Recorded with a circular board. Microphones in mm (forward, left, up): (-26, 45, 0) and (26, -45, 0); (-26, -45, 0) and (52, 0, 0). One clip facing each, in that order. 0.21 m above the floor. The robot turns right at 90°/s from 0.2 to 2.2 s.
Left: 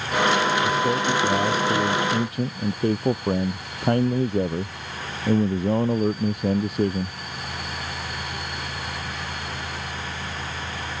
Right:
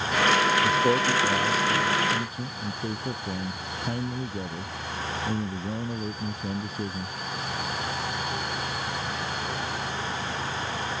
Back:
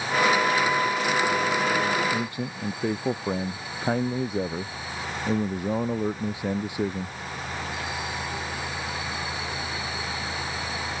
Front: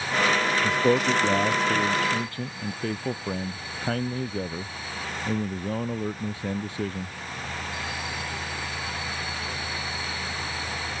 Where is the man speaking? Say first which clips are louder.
Left 1 dB, front 2 dB; 5° right; by 7.2 s 135° left.